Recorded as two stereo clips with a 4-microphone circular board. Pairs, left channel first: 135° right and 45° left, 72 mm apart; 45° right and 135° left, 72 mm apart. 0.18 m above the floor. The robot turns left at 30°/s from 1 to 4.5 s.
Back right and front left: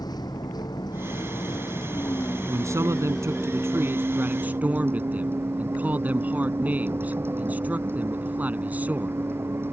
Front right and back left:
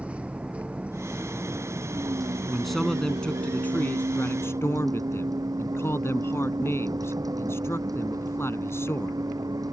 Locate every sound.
0.0 s a vehicle: 155° right; by 9.7 s 100° left
2.5 s a man speaking: 50° left; by 9.2 s 10° right